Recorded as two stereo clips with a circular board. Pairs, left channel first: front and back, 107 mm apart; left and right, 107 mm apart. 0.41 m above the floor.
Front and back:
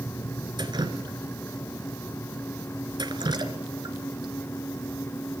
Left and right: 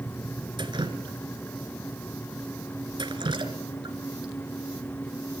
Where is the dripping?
135° right, 1.9 m.